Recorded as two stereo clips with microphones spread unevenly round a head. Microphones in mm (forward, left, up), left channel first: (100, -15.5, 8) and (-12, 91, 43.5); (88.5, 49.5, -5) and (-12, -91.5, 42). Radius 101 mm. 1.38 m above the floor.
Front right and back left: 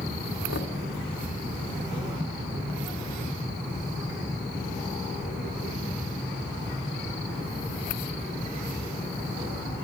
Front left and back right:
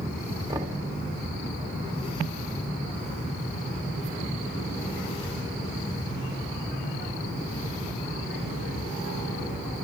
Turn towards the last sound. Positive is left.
turn(degrees=-60)